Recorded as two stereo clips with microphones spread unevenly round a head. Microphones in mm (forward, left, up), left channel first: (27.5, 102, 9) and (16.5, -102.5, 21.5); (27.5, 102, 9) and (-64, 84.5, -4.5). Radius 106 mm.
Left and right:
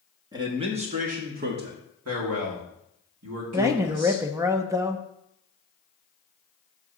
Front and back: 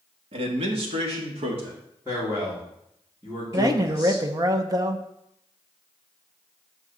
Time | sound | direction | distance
0.3 | a man speaking | 165° right | 1.5 m
2.0 | a man speaking | 100° right | 2.5 m
3.5 | a man speaking | 165° right | 0.7 m